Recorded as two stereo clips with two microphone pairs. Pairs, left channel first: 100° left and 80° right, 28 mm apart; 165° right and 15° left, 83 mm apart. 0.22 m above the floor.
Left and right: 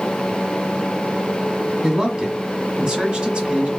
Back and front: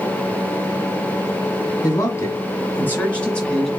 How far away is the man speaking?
About 1.5 m.